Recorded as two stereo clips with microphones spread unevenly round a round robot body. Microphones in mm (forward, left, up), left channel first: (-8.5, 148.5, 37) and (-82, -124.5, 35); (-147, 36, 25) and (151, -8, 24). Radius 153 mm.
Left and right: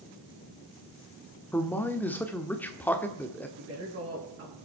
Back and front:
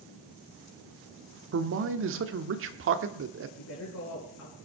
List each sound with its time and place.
1.5 s a man speaking: 5° right, 1.2 m
3.6 s a woman speaking: 155° right, 5 m